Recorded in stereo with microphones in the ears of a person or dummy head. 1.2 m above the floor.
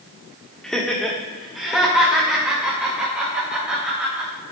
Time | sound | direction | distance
0.6 | laughter | 5° left (ahead or behind) | 1.3 m